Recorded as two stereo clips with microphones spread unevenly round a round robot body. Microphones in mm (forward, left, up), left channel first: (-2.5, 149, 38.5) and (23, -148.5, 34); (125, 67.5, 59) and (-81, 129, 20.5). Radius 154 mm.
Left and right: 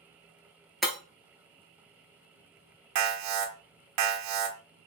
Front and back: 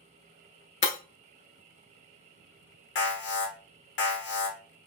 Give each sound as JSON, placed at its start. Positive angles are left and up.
{"t": 0.8, "sound": "breaking glass", "azimuth_deg": 5, "distance_m": 0.5}
{"t": 3.0, "sound": "an alarm", "azimuth_deg": -65, "distance_m": 0.8}